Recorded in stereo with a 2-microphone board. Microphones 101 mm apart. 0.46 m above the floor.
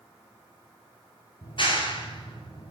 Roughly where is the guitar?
I don't hear a guitar.